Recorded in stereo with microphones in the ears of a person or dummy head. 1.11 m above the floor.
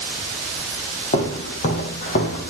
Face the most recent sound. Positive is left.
turn(degrees=50)  # may be behind; listen again after turning